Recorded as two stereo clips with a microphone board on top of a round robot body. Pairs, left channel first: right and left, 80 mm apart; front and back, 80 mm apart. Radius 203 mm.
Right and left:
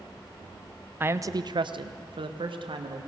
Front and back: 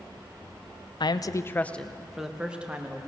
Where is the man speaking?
25° left, 0.9 m; by 3.0 s 110° left, 2 m.